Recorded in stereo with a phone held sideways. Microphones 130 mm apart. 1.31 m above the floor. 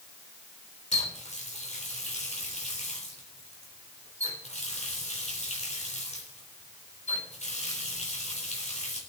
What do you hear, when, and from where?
0.9 s a running tap: 60° left (ahead or behind), 3.5 m